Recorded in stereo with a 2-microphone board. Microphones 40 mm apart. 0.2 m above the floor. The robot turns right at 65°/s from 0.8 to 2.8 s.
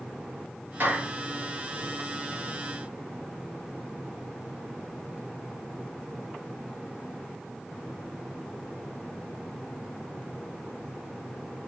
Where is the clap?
60° right (ahead or behind), 4 m; by 1.1 s 40° right (ahead or behind), 4 m.